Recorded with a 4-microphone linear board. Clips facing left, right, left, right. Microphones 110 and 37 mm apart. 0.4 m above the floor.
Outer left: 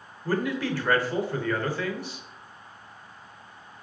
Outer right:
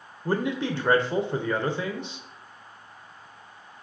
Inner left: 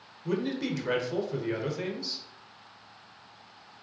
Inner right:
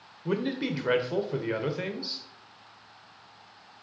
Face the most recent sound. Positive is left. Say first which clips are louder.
# outer right 1 dB, inner right 1 dB
turn(degrees=-25)  # may be behind; listen again after turning